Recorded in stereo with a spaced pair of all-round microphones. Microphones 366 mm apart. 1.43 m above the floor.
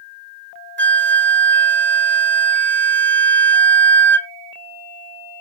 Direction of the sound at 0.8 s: 30° right (ahead or behind).